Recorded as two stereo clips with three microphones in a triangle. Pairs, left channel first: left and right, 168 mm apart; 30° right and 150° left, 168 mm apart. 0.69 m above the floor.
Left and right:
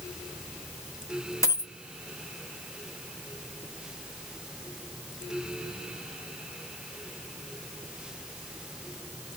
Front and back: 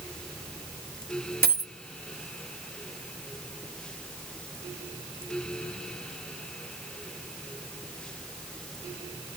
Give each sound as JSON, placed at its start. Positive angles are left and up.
{"t": 1.4, "sound": "a dropped coin", "azimuth_deg": 160, "distance_m": 0.7}